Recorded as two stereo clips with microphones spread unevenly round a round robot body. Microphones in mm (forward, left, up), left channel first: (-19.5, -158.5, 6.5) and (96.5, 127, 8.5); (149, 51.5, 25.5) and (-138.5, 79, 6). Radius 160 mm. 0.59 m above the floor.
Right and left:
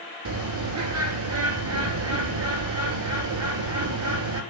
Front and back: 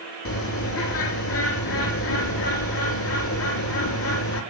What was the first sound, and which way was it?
A bird, 30° left.